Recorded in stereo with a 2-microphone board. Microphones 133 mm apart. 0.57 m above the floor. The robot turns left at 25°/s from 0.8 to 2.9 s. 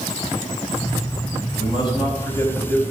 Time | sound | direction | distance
1.6 | a man speaking | 45° left | 4 m